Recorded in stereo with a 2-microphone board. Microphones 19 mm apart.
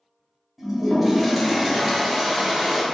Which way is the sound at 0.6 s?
15° right (ahead or behind).